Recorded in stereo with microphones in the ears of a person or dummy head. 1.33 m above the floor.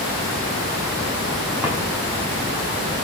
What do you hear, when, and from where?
1.6 s a drawer: 10° right (ahead or behind), 7.5 m